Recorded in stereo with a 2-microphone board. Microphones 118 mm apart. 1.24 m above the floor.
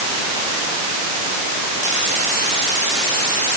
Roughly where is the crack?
I don't hear a crack.